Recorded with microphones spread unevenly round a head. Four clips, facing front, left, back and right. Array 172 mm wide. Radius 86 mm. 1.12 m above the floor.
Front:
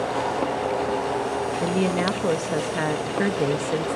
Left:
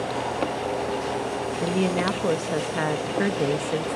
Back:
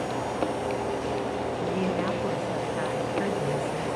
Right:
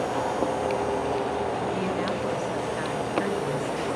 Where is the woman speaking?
40° left, 1.3 m.